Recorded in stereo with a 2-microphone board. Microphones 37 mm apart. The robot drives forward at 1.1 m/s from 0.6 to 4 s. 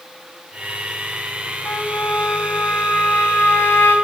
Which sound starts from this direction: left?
A trumpet, at 1.6 s.